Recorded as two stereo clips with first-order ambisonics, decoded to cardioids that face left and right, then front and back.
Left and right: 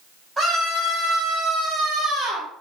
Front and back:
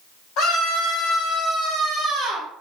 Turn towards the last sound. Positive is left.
turn(degrees=-115)